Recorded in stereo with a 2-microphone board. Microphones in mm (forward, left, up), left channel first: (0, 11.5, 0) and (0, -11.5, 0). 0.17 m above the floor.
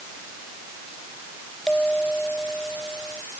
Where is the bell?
35° left (ahead or behind).